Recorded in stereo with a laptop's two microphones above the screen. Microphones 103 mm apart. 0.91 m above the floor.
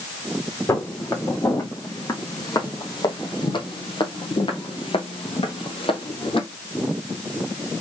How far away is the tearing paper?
I don't hear tearing paper.